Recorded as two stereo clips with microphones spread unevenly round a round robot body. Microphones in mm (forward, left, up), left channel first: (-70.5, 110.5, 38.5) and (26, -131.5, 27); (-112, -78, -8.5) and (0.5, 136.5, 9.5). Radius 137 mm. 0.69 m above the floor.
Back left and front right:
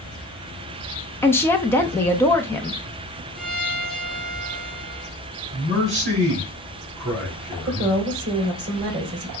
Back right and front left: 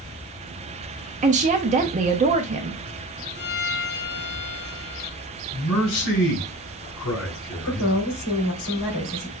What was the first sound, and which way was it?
A woman speaking, 35° left.